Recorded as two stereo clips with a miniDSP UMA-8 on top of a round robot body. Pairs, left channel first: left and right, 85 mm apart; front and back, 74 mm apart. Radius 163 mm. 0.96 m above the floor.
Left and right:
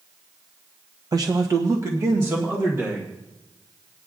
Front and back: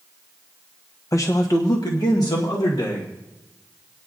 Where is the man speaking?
50° right, 0.6 m; by 3.1 s 30° right, 2 m.